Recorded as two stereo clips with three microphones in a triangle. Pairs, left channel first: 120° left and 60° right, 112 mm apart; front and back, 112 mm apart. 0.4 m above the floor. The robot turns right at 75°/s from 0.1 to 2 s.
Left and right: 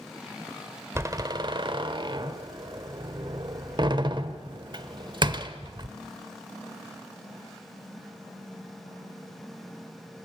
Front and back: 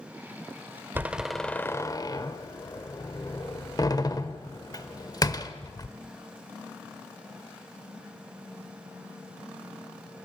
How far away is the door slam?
About 1.2 m.